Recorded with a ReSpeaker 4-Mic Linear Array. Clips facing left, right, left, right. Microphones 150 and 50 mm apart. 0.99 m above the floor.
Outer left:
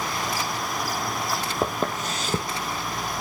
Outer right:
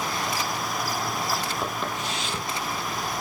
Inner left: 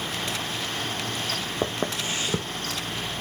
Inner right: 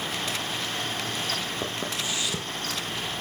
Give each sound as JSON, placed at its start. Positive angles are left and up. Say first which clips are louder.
{"t": 1.6, "sound": "footsteps", "louder": "outer left 4 dB, inner left 3 dB", "side_deg": 40, "distance_m": 1.4}